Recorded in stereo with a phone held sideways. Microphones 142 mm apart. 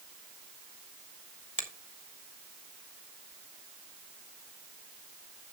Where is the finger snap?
60° left (ahead or behind), 2 m.